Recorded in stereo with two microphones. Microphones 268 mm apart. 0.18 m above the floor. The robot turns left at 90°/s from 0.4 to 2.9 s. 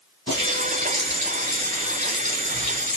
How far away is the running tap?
About 1.7 m.